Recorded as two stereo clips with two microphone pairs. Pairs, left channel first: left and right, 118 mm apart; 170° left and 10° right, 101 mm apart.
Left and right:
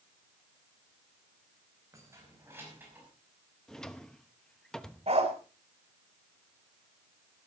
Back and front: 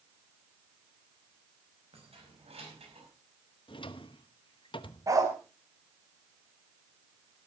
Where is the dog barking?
65° right, 2.5 m.